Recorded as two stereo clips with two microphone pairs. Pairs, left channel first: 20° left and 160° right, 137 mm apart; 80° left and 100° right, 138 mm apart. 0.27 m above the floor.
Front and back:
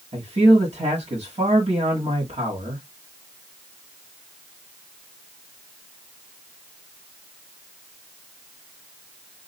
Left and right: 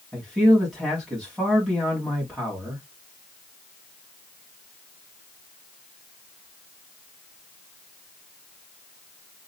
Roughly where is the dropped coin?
No dropped coin in this recording.